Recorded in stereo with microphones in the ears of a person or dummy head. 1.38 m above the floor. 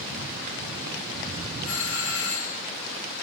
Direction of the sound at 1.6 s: 70° left (ahead or behind).